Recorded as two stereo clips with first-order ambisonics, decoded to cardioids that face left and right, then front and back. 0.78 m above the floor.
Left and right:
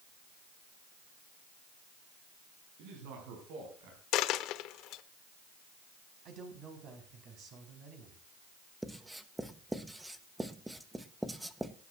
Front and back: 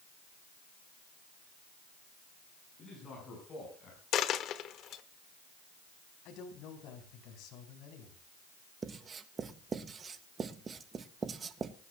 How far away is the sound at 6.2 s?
About 4.5 m.